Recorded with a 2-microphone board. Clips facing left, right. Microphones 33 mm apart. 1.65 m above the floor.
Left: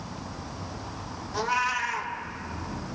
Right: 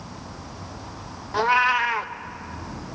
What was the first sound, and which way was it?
A cat meowing, 30° right (ahead or behind).